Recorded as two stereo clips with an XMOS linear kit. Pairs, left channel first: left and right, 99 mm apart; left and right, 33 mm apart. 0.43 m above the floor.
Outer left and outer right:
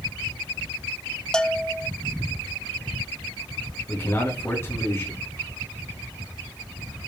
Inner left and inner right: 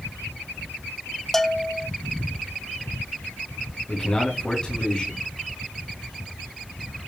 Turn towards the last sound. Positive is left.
turn(degrees=30)  # may be behind; listen again after turning